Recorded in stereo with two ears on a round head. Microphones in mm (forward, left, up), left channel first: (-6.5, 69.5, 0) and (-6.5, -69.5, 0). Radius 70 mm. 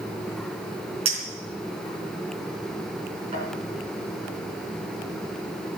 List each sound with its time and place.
1.1 s a clink: 40° right (ahead or behind), 4 m